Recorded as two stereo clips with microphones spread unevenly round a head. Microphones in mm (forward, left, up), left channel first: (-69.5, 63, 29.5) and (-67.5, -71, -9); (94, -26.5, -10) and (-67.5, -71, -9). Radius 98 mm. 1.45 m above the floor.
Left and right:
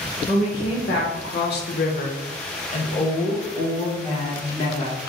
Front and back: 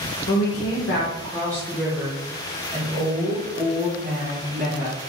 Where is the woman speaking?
20° left, 0.8 m; by 5.0 s 145° left, 2.5 m.